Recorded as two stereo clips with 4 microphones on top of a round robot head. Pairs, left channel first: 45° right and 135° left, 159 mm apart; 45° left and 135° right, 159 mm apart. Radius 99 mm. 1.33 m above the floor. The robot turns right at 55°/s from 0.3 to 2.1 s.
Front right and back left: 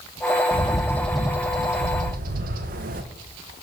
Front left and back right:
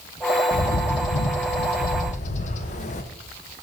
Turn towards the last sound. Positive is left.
turn(degrees=95)